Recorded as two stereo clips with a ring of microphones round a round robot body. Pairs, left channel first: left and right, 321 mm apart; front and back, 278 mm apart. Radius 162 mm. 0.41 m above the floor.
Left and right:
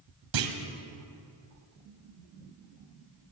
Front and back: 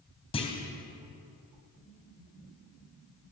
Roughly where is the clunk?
Right.